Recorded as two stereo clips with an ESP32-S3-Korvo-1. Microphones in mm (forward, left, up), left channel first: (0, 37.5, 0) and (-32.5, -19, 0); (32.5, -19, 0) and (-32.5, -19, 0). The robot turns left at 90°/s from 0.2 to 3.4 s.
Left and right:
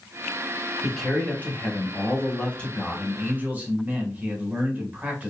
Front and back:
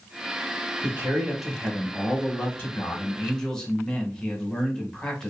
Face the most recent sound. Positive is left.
turn(degrees=-75)